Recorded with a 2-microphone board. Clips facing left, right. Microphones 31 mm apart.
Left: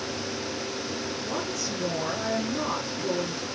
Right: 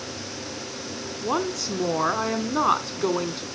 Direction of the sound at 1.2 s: 65° right (ahead or behind).